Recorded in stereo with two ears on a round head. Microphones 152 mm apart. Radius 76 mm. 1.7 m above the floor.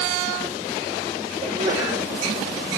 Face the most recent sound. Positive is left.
turn(degrees=-20)  # may be behind; listen again after turning